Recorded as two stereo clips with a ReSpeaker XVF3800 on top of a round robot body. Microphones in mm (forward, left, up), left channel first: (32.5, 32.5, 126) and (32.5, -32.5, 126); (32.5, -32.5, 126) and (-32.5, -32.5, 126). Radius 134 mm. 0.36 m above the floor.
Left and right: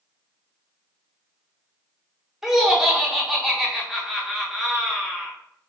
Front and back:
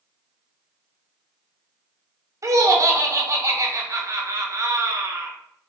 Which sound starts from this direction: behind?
Laughter, at 2.4 s.